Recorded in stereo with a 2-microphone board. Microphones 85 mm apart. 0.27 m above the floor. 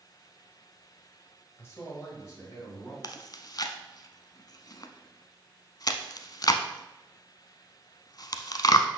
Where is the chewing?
50° left (ahead or behind), 0.6 m.